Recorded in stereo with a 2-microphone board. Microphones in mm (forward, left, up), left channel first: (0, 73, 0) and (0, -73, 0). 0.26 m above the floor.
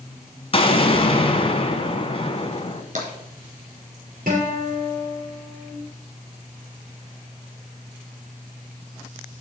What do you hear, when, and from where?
0.5 s an explosion: 40° left (ahead or behind), 1.0 m
3.0 s tapping: 60° right (ahead or behind), 2.5 m
4.3 s a guitar: 70° right (ahead or behind), 5.5 m